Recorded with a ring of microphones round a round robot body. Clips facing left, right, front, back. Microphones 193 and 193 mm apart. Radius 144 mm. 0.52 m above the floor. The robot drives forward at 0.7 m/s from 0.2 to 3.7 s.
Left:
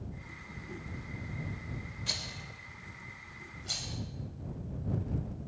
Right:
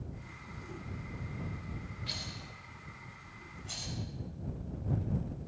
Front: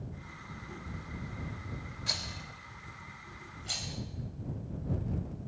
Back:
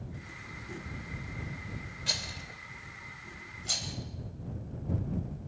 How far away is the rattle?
About 2.5 m.